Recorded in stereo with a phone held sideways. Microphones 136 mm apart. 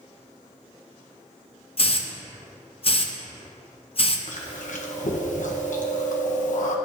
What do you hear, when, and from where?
1.8 s a hiss: 45° left (ahead or behind), 0.6 m
4.3 s chewing: 70° left (ahead or behind), 0.9 m